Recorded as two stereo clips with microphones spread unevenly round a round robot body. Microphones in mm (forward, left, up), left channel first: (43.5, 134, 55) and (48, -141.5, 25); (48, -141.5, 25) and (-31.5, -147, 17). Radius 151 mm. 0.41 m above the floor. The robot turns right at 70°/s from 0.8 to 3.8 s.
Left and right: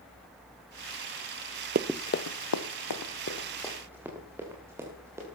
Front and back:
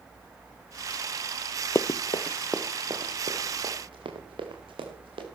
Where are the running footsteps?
40° right, 0.5 m; by 5.2 s 170° right, 5.5 m.